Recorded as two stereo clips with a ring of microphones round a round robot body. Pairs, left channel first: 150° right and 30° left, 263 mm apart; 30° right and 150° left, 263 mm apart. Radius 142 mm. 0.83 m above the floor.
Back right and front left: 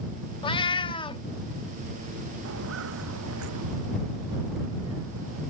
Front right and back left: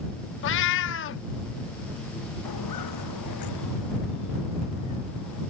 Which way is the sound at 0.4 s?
75° right.